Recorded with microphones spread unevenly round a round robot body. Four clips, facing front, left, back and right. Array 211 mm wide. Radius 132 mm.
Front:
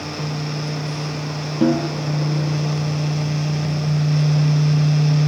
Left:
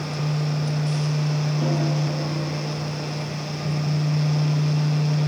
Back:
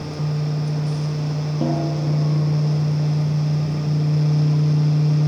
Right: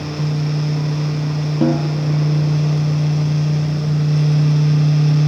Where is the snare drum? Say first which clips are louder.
Right 9 dB, front 6 dB; 60° right, 3 m.